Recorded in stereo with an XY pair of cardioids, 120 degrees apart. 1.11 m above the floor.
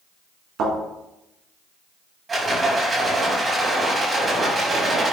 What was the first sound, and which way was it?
A thud, 65° right.